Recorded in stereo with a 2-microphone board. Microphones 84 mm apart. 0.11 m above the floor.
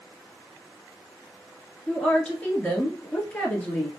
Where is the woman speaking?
20° left (ahead or behind), 1.2 m.